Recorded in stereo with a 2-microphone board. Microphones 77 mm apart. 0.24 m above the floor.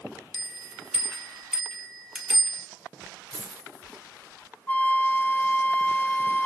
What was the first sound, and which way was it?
A bell, 5° right (ahead or behind).